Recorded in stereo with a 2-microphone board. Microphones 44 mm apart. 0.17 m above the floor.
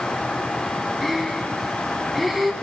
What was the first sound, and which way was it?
Breathing, centre (ahead or behind).